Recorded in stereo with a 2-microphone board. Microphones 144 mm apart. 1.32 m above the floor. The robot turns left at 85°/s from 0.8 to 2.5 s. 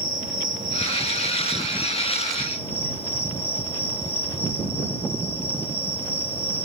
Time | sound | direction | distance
0.0 | an insect | 80° right | ?